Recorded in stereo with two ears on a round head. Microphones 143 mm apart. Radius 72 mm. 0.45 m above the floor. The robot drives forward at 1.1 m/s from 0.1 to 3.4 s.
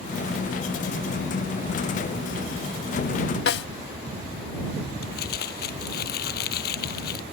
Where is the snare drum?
75° left (ahead or behind).